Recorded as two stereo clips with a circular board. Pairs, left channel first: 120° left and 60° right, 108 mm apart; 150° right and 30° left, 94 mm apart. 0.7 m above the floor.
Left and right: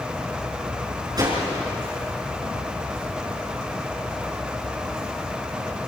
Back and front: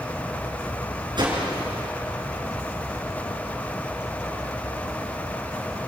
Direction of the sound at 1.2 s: 5° right.